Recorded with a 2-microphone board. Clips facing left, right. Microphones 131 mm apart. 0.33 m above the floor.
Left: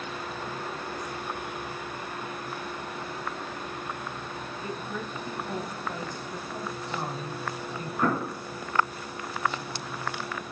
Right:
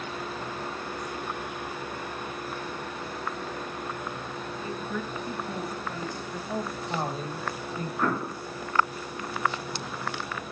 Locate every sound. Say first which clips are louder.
4.6 s a woman speaking: right 2 dB; 20° left (ahead or behind), 2.5 m
6.5 s a woman speaking: right 5 dB; 40° right (ahead or behind), 1.5 m
8.0 s an explosion: left 2 dB; 10° left (ahead or behind), 3.5 m